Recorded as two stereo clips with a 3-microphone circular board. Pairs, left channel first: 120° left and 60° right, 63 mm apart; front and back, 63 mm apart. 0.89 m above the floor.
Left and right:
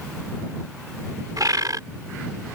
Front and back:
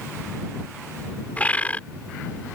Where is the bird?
65° right.